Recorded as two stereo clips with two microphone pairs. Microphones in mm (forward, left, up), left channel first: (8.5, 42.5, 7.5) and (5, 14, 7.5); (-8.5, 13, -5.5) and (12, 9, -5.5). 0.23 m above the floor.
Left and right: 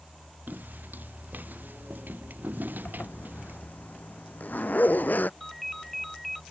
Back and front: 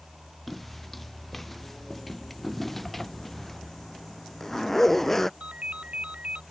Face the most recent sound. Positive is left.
turn(degrees=-5)